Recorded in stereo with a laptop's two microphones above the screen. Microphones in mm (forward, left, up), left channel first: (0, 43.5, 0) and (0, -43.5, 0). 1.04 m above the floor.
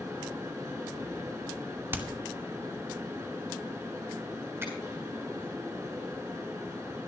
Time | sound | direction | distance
0.0 | a fan | 35° right (ahead or behind) | 5 m
1.9 | hammering | 25° right (ahead or behind) | 2 m
4.6 | a finger snap | 25° right (ahead or behind) | 8 m